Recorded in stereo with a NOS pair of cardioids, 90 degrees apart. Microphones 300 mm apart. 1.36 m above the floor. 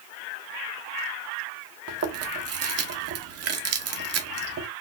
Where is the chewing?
55° right, 1.0 m.